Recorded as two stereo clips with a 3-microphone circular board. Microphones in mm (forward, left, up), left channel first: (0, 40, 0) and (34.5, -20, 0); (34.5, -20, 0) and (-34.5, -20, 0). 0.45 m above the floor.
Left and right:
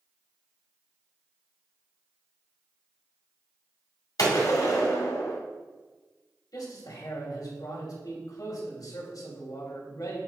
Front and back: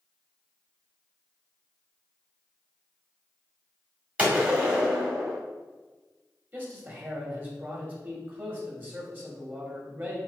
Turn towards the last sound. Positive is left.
turn(degrees=120)